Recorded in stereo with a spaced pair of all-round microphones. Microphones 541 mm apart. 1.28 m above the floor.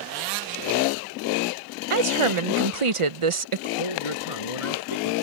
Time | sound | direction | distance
1.9 | a woman speaking | 70° right (ahead or behind) | ?
3.8 | a man speaking | 65° left (ahead or behind) | ?